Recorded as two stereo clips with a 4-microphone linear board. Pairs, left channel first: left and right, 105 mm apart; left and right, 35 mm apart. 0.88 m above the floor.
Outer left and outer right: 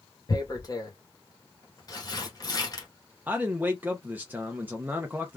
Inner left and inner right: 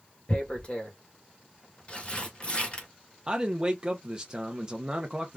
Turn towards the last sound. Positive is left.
turn(degrees=-15)  # may be behind; listen again after turning